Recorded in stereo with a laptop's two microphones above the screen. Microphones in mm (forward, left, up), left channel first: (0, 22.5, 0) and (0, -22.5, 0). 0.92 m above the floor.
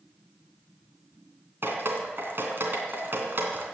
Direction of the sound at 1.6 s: 50° right (ahead or behind).